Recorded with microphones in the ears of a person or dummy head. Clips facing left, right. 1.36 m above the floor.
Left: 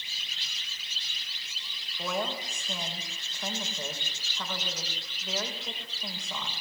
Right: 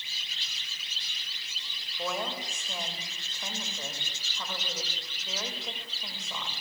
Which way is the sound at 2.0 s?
Centre (ahead or behind).